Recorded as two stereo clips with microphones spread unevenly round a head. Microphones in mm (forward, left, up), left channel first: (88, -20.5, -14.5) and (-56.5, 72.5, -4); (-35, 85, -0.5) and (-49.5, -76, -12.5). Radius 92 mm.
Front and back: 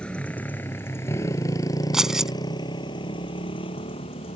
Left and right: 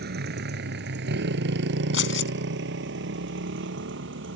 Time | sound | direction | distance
0.0 | a motorcycle | 120° right | ?
1.9 | keys jangling | 60° left | ?